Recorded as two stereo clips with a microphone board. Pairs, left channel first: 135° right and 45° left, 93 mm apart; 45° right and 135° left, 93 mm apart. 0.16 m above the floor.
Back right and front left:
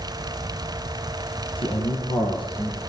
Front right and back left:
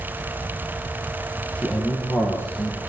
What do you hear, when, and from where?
1.6 s a man speaking: 120° right, 6.5 m; by 2.8 s 105° right, 6.5 m